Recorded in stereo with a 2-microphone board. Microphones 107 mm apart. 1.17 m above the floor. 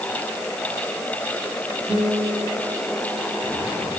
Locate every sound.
1.9 s a guitar: 30° right (ahead or behind), 9.5 m